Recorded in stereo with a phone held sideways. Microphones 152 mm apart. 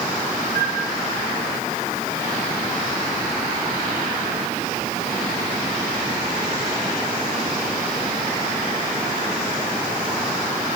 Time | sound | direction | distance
0.5 | a flute | 80° right | 2.5 m